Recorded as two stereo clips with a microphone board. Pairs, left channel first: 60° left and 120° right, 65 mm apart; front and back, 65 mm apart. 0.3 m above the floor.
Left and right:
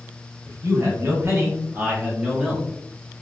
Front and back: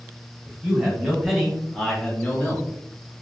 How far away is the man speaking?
About 1.8 m.